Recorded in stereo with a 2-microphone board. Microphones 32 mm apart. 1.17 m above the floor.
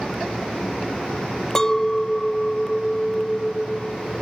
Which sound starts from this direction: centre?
A clink, at 1.6 s.